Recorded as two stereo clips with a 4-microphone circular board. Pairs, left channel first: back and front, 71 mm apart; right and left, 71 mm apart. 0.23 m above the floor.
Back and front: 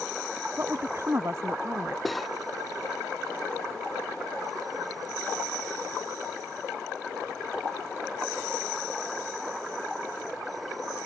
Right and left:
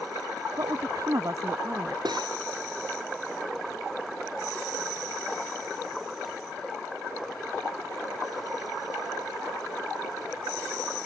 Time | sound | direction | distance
0.6 | a woman speaking | 55° left | ?
2.0 | cutlery clinking | 90° left | ?